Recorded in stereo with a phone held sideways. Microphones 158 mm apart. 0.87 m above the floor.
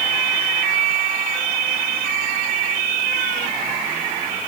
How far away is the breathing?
No breathing in this recording.